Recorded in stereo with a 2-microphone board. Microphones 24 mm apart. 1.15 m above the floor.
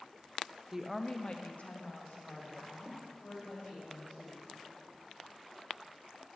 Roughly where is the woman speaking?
Centre.